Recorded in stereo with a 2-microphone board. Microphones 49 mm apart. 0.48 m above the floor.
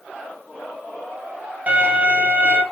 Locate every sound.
1.7 s a violin: 35° right (ahead or behind), 2.5 m